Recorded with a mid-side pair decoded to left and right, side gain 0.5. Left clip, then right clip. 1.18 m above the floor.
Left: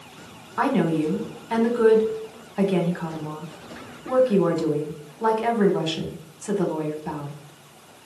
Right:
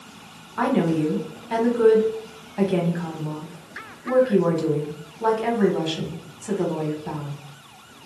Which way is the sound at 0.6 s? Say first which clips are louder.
Even; 15° left.